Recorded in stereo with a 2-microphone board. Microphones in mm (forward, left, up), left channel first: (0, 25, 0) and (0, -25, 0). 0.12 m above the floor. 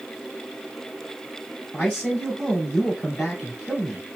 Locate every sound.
1.7 s a man speaking: 10° left (ahead or behind), 1.4 m